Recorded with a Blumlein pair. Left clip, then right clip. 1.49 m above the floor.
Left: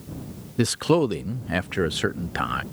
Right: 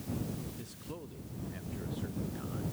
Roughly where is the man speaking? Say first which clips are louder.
Left 25 dB; ahead left.